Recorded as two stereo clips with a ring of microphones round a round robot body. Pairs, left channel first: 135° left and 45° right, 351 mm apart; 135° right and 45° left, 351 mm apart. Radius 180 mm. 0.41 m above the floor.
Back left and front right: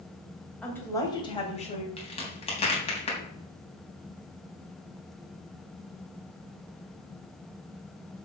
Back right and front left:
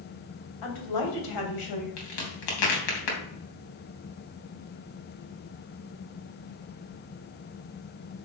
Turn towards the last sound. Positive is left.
turn(degrees=-150)